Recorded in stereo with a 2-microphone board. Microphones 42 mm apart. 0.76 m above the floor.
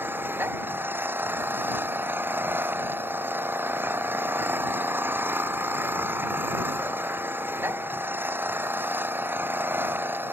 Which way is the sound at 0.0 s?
55° right (ahead or behind).